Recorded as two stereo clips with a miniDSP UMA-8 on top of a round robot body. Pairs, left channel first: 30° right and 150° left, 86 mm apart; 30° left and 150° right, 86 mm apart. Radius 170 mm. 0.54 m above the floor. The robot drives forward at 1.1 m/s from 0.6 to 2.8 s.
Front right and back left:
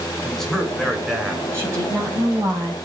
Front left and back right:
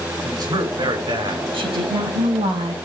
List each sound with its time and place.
0.2 s a man speaking: 120° right, 4 m; by 1.4 s 130° right, 4.5 m
1.5 s a woman speaking: 150° right, 4.5 m; by 2.8 s 155° right, 5.5 m